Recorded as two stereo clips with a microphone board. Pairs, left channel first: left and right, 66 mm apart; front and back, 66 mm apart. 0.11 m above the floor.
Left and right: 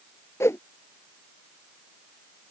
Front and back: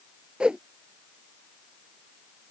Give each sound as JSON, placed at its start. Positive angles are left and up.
{"t": 0.4, "sound": "a whoosh", "azimuth_deg": 110}